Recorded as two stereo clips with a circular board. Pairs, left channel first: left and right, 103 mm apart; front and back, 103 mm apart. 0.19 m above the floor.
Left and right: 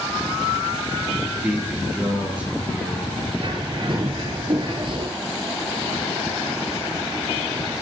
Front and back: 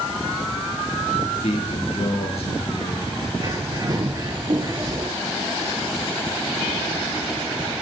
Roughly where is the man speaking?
Ahead.